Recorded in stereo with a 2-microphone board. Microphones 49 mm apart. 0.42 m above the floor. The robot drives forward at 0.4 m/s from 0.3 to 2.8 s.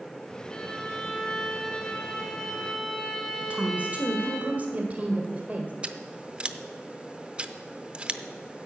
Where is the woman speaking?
30° right (ahead or behind), 1.6 m.